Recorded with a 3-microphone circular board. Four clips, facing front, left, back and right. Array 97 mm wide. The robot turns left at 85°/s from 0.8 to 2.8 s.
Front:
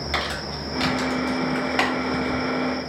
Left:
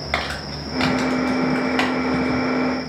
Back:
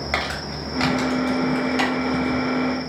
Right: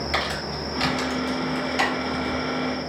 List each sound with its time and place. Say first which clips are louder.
0.1 s crumpling: left 3 dB, back 1 dB; 130° left, 1.4 m; by 2.4 s 5° right, 1.4 m